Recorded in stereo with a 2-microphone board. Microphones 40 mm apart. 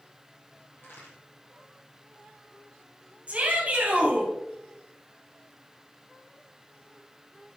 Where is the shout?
30° right (ahead or behind), 2.5 m.